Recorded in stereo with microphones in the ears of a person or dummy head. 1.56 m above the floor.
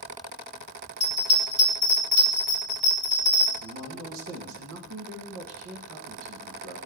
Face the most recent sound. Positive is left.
turn(degrees=-65)  # may be behind; listen again after turning